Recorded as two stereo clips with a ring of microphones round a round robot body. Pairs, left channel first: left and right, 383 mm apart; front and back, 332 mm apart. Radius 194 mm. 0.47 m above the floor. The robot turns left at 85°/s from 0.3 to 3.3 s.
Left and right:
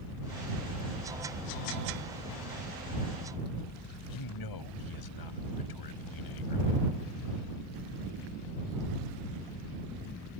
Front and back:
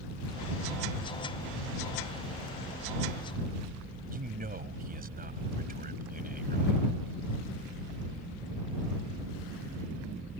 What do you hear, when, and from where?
4.1 s a man speaking: 120° left